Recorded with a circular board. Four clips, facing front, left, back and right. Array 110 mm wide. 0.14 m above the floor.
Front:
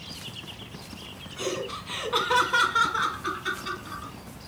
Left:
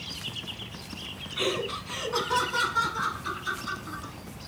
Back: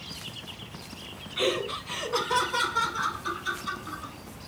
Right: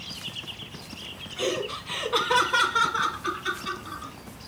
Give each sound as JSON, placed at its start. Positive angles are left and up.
{"t": 1.4, "sound": "laughter", "azimuth_deg": 140, "distance_m": 1.6}